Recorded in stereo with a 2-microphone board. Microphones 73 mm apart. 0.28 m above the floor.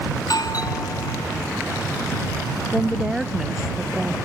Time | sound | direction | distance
0.2 | a doorbell | 65° left (ahead or behind) | ?
2.7 | a woman speaking | 5° right (ahead or behind) | ?